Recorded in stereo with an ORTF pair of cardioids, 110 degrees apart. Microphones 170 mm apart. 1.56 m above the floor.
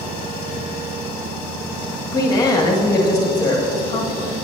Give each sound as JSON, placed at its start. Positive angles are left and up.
{"t": 2.1, "sound": "a woman speaking", "azimuth_deg": 20, "distance_m": 1.7}